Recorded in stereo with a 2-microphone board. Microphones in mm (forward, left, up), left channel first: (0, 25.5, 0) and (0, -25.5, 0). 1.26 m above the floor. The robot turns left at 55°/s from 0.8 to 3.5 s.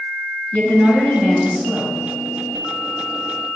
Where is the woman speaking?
50° left, 2 m; by 2.0 s 15° right, 2 m.